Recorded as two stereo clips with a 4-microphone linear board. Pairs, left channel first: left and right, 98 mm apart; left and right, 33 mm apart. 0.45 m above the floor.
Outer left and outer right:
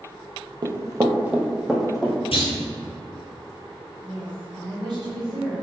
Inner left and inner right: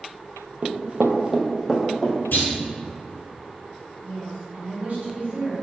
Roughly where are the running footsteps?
Right.